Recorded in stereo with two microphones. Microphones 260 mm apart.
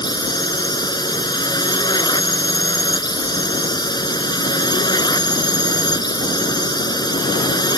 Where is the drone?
15° left (ahead or behind).